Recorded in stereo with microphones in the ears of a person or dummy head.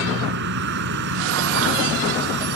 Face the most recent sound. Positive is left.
turn(degrees=-60)  # may be behind; listen again after turning